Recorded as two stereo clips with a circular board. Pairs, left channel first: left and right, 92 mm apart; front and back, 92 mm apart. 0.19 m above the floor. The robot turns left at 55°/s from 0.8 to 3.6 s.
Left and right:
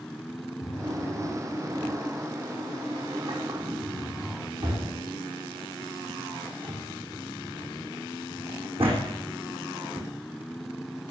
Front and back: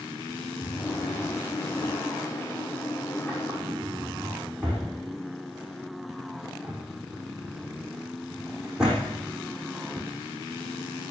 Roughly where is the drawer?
Ahead left.